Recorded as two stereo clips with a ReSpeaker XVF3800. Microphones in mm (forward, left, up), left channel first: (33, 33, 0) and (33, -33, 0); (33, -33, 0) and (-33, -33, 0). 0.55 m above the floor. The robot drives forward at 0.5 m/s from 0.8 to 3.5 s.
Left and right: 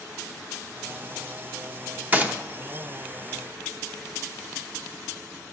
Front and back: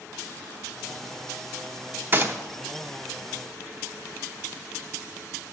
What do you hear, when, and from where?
2.1 s a gunshot: 140° right, 0.7 m; by 2.4 s 145° right, 0.7 m